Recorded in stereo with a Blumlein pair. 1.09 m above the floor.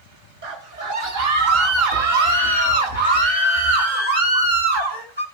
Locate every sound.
0.4 s a scream: 55° right, 6 m; by 5.2 s 75° right, 7.5 m